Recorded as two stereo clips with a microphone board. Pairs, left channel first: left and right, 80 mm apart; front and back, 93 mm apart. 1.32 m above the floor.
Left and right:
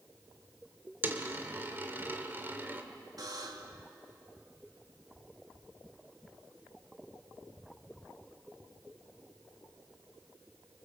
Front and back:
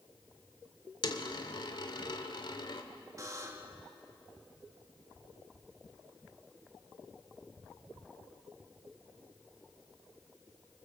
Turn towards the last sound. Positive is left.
turn(degrees=-125)